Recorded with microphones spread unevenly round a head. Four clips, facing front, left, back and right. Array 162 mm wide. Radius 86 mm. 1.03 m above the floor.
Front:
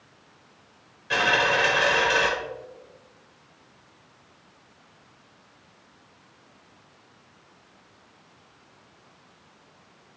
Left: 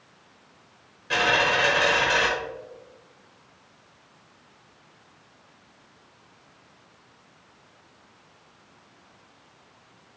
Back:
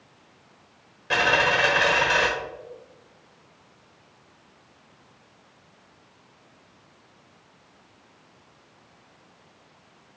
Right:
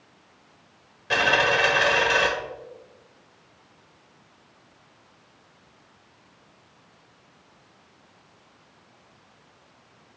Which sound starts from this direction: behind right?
A dropped coin, at 1.1 s.